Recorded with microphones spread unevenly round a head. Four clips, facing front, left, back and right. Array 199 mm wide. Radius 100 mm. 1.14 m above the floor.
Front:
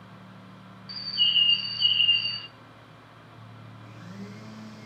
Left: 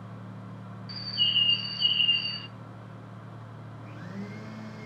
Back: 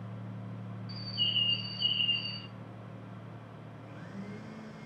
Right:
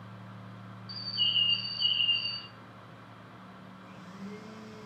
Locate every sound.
0.9 s a bird: 30° left, 0.8 m
3.8 s a blender: 90° left, 2 m